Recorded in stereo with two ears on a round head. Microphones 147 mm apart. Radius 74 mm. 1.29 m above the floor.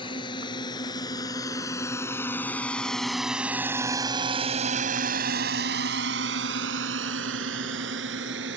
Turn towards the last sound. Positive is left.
turn(degrees=-75)  # may be behind; listen again after turning